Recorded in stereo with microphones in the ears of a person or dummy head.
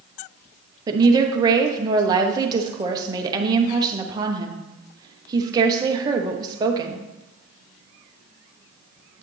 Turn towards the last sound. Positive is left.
turn(degrees=-20)  # may be behind; listen again after turning